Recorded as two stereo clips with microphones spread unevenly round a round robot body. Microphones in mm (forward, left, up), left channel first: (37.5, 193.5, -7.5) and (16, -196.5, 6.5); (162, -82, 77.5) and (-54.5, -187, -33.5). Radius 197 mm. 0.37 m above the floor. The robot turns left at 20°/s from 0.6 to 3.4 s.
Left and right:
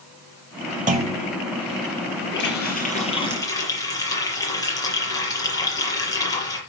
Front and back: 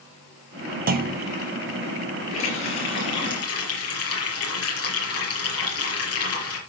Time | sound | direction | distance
0.9 | a clunk | 165° right | 1.3 m
2.3 | a running tap | 30° left | 6 m